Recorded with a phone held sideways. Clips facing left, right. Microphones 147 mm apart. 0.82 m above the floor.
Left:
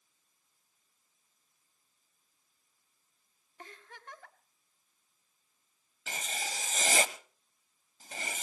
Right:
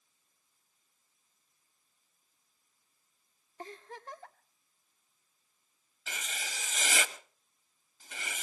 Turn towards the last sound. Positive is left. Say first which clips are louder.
# left 3 dB
turn(degrees=40)  # may be behind; listen again after turning